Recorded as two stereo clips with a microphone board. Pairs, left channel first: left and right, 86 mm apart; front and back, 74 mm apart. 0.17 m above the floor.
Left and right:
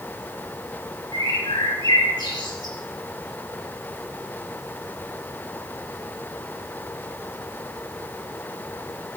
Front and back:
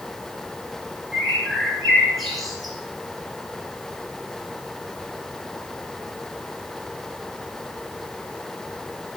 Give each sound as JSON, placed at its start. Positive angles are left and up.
{"t": 1.1, "sound": "a bird", "azimuth_deg": 90, "distance_m": 3.0}